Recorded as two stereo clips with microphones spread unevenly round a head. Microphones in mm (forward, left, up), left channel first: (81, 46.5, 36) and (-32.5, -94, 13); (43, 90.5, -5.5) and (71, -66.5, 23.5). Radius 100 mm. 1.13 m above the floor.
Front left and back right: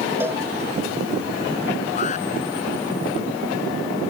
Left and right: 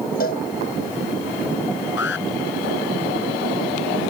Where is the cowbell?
150° left.